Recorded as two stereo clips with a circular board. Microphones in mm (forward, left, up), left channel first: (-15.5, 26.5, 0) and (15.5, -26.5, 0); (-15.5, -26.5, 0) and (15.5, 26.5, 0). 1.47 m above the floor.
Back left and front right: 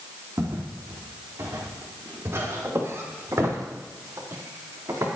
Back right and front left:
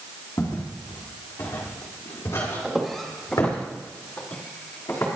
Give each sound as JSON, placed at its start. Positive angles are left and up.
{"t": 0.4, "sound": "footsteps", "azimuth_deg": -95, "distance_m": 3.5}
{"t": 2.6, "sound": "footsteps", "azimuth_deg": -20, "distance_m": 2.5}